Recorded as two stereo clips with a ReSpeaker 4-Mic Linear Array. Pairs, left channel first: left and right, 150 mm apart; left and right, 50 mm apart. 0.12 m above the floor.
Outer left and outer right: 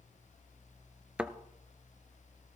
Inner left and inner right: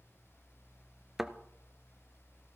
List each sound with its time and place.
1.2 s a thud: 10° right (ahead or behind), 0.5 m